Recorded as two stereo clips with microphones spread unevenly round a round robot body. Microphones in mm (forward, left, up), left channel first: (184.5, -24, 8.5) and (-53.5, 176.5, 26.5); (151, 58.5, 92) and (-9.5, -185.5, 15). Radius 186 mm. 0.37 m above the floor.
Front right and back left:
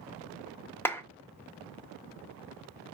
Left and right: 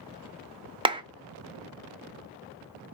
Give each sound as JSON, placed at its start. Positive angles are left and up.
{"t": 0.8, "sound": "a clap", "azimuth_deg": -110, "distance_m": 0.6}